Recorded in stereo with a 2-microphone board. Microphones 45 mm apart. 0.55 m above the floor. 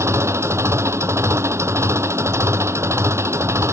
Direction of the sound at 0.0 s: 85° right.